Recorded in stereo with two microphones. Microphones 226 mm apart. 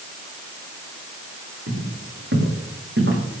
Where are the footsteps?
65° right (ahead or behind), 7.5 m.